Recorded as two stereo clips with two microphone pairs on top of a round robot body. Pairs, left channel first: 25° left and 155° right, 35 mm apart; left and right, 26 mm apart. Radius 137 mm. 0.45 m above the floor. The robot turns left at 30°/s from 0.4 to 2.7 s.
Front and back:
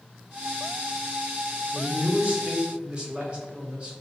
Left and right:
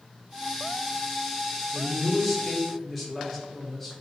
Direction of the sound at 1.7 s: 160° left.